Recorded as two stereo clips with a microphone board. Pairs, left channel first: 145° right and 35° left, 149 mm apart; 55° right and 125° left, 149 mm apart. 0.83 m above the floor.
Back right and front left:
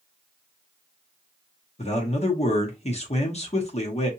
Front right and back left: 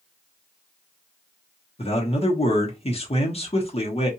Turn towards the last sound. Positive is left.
turn(degrees=-105)